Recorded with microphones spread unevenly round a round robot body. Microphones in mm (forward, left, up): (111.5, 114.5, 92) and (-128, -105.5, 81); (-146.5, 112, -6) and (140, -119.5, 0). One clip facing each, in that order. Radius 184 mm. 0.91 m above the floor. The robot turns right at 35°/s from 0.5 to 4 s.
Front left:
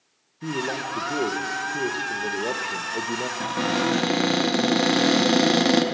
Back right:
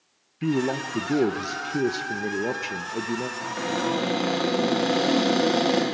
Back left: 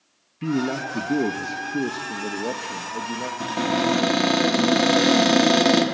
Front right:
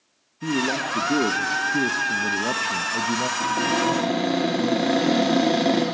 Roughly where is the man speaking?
Behind.